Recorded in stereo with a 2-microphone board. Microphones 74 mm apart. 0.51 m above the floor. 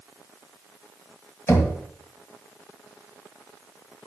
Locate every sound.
1.5 s knocking: 35° left (ahead or behind), 1.8 m